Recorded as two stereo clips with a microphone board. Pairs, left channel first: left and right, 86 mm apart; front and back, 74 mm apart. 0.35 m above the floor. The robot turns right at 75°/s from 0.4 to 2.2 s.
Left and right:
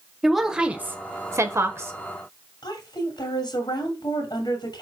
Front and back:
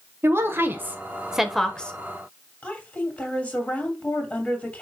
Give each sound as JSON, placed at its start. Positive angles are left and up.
{"t": 0.2, "sound": "a woman speaking", "azimuth_deg": -175, "distance_m": 1.0}
{"t": 2.6, "sound": "a woman speaking", "azimuth_deg": 75, "distance_m": 2.5}